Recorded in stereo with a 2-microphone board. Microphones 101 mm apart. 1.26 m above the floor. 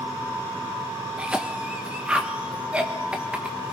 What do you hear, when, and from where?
1.2 s a cough: 10° right (ahead or behind), 1.7 m